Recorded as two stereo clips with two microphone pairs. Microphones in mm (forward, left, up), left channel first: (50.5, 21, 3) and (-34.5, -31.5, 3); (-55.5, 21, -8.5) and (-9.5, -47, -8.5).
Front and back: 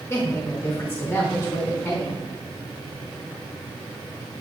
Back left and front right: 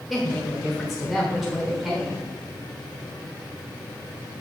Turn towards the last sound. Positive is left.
turn(degrees=35)